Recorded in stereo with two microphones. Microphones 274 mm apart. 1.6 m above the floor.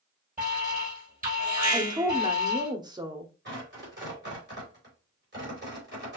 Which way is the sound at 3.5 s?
40° right (ahead or behind).